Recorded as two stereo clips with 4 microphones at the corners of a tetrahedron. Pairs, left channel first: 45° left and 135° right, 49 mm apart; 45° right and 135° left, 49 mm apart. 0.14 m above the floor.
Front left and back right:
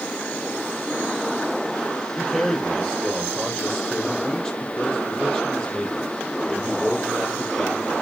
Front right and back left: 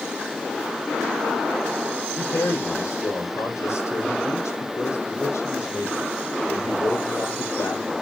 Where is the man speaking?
35° right, 5.5 m.